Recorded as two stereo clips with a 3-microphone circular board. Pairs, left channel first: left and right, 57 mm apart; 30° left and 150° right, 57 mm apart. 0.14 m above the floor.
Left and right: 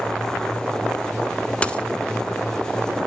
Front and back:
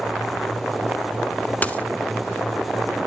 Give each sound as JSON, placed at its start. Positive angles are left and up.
{"t": 1.6, "sound": "a dropped coin", "azimuth_deg": 45, "distance_m": 0.7}